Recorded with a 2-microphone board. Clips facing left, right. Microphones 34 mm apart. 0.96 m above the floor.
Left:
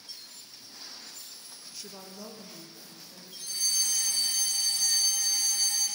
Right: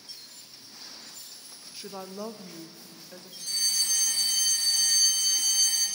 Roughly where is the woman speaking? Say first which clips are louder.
Right 7 dB; right.